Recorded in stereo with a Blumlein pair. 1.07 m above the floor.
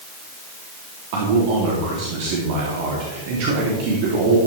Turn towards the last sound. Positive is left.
turn(degrees=-45)